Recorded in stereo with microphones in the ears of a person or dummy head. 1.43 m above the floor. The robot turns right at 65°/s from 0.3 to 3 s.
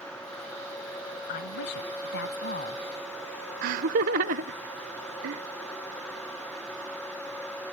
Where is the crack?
I don't hear a crack.